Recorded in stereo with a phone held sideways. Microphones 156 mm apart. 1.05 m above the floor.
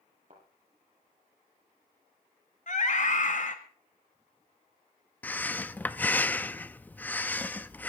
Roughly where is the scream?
Left.